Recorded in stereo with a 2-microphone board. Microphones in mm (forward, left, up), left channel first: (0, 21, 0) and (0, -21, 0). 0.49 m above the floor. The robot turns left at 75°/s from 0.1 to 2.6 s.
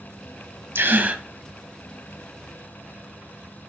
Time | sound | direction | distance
0.8 | a gasp | 115° right | 1.5 m